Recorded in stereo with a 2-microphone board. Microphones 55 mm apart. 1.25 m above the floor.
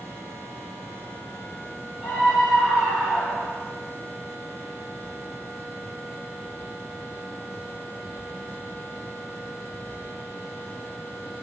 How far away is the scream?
About 7.5 m.